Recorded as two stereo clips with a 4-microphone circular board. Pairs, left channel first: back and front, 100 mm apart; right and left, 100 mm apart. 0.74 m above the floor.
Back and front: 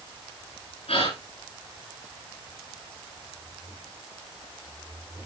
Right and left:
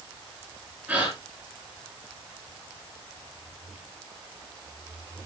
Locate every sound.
0.9 s a gasp: 170° left, 8.5 m